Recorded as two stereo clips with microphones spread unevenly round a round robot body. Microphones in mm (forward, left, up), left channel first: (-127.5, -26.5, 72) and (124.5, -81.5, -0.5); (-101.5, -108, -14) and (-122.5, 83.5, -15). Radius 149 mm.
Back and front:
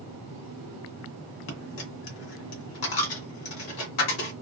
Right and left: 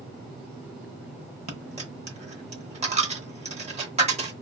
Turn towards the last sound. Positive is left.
turn(degrees=155)